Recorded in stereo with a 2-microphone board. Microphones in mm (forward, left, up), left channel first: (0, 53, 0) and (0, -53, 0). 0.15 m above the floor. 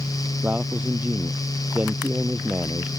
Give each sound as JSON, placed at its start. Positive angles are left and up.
{"t": 0.4, "sound": "a man speaking", "side_deg": -15}